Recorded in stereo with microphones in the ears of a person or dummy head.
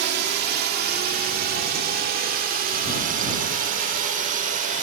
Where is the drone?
55° right (ahead or behind); by 4.8 s 40° right (ahead or behind).